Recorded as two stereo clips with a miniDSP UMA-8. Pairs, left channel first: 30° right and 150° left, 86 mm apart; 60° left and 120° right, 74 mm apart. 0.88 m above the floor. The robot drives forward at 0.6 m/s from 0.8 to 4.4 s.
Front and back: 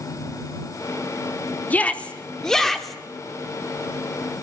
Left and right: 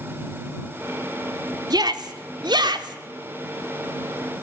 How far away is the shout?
About 2 m.